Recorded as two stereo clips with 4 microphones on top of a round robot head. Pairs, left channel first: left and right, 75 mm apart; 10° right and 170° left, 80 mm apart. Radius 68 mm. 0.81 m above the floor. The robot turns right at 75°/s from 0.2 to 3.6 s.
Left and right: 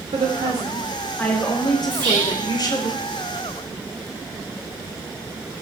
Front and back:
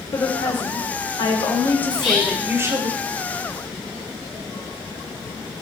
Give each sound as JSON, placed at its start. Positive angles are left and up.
{"t": 0.1, "sound": "a woman speaking", "azimuth_deg": -65, "distance_m": 3.5}
{"t": 1.9, "sound": "whispering", "azimuth_deg": -60, "distance_m": 5.5}